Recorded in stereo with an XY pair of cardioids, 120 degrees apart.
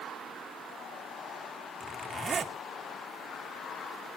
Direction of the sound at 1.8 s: 25° right.